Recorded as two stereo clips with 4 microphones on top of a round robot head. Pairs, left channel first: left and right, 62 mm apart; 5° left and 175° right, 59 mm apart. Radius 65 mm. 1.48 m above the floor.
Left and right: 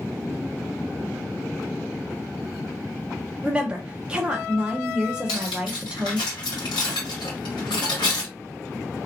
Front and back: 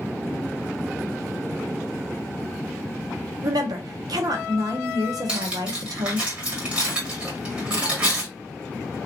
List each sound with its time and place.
3.4 s a woman speaking: 165° right, 0.8 m
5.3 s cutlery clinking: 115° left, 1.5 m